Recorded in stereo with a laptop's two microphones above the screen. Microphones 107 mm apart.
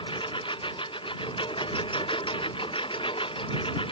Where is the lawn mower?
50° left (ahead or behind); by 3.9 s 55° left (ahead or behind).